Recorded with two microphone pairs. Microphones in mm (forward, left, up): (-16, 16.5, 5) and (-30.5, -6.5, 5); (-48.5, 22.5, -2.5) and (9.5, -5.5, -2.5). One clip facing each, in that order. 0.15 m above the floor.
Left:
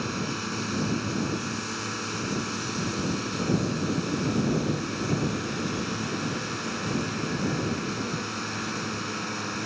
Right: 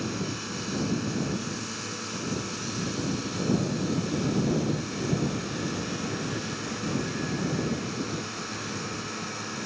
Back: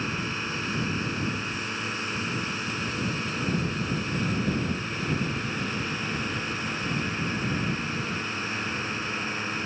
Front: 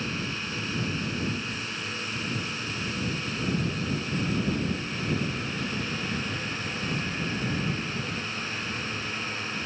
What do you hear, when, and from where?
0.0 s a drone: 110° left